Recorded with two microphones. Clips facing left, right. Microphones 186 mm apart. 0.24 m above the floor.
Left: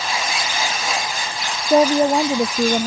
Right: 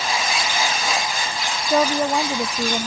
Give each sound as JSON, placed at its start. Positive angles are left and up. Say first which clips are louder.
{"t": 1.7, "sound": "a woman speaking", "louder": "left 5 dB", "side_deg": 25}